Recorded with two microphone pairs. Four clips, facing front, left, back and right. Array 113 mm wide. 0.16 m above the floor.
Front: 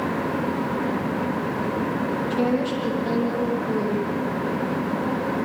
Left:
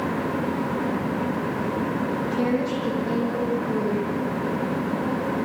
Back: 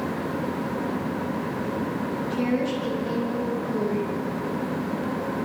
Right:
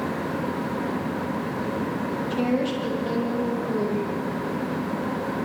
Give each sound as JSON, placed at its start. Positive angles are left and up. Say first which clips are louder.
{"t": 2.3, "sound": "a woman speaking", "louder": "right 1 dB, front 1 dB", "azimuth_deg": -40, "distance_m": 6.0}